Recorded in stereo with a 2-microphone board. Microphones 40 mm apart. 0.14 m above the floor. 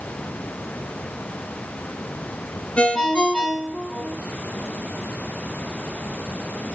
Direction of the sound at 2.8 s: 20° left (ahead or behind).